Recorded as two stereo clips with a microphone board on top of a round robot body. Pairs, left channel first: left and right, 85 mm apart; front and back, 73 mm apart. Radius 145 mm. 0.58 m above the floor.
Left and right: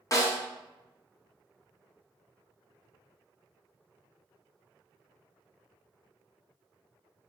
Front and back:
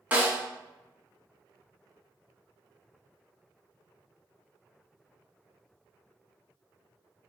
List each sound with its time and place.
0.1 s a snare drum: 120° left, 1.3 m